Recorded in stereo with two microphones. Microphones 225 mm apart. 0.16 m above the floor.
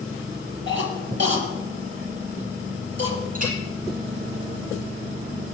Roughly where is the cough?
Right.